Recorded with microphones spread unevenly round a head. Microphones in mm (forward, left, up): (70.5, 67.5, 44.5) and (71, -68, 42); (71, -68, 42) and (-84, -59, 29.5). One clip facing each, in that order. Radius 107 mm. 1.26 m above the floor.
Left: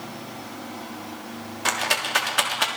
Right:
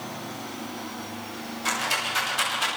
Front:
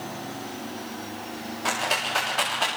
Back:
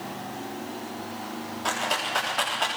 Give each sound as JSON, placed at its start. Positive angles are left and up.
{"t": 1.6, "sound": "a rattle", "azimuth_deg": 85, "distance_m": 3.5}